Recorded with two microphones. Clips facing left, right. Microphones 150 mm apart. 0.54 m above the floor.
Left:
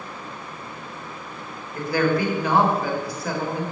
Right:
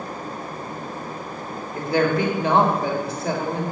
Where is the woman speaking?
20° right (ahead or behind), 2.0 m.